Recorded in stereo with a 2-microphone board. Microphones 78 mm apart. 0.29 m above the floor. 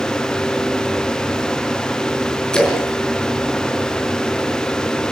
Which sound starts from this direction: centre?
A splash, at 2.5 s.